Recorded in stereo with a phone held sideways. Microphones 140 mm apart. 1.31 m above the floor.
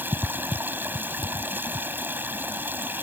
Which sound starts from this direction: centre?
Running water, at 0.0 s.